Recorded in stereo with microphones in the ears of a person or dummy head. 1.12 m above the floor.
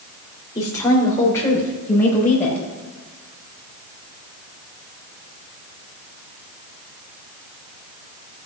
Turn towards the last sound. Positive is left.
turn(degrees=10)  # may be behind; listen again after turning